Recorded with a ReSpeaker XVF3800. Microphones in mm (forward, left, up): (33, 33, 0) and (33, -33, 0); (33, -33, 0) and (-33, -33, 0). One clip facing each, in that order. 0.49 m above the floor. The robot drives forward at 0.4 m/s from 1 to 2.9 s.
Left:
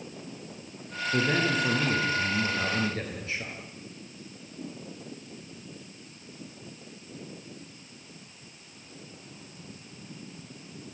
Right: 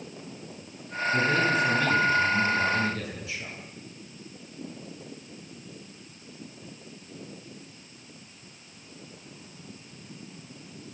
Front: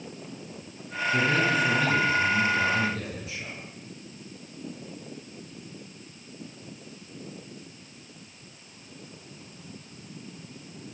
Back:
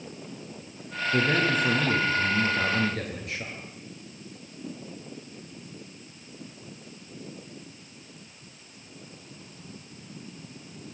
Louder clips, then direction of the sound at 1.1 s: Right 2 dB, even; 140° left.